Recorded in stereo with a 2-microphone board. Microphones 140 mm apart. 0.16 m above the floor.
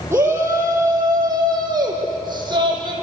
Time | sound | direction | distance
0.1 | a shout | 20° right (ahead or behind) | 5.5 m